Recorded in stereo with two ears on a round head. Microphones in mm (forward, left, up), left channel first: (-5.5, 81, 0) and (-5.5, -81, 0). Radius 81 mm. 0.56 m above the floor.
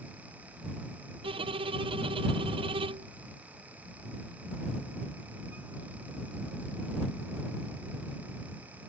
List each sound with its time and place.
1.2 s a violin: 30° right (ahead or behind)